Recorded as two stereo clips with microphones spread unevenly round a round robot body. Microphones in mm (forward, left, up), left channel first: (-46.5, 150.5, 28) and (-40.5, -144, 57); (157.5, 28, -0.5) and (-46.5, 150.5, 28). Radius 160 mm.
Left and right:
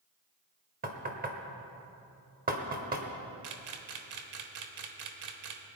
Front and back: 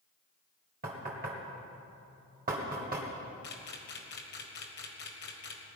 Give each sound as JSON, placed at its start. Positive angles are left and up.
{"t": 0.8, "sound": "knocking", "azimuth_deg": -150, "distance_m": 1.6}
{"t": 3.4, "sound": "a camera shutter", "azimuth_deg": -70, "distance_m": 1.3}